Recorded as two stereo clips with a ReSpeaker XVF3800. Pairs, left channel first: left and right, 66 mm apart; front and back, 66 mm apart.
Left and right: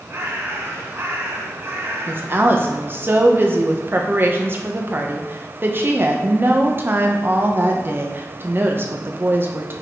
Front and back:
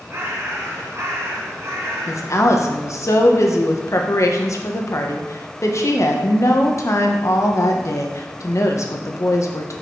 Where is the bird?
140° right, 3 m.